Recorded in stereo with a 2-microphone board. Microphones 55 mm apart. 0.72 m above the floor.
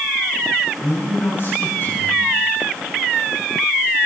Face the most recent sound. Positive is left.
turn(degrees=45)  # may be behind; listen again after turning